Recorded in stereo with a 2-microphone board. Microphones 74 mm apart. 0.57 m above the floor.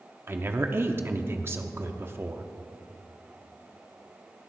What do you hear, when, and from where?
0.3 s a woman speaking: 35° right (ahead or behind), 0.7 m